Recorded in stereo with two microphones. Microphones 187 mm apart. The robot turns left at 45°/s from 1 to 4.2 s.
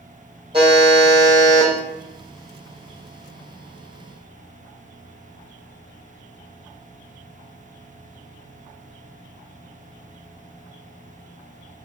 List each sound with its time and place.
0.5 s a buzzer: 150° right, 1.2 m; by 1.7 s 175° left, 1.2 m